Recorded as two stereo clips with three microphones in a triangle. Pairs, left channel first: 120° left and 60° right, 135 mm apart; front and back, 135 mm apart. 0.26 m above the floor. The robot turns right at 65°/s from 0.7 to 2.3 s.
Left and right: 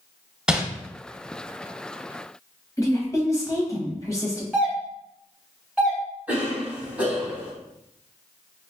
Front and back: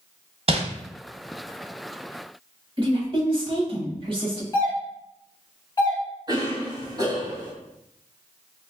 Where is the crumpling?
145° right, 0.8 m.